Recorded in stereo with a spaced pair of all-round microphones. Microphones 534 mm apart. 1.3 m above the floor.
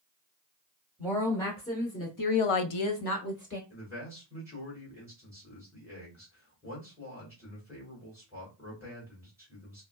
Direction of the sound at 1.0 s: 5° left (ahead or behind).